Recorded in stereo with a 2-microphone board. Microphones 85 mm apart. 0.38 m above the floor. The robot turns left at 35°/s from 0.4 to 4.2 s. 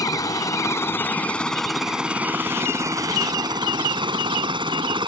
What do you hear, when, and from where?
0.0 s a helicopter: 45° left (ahead or behind); by 5.1 s 70° right (ahead or behind)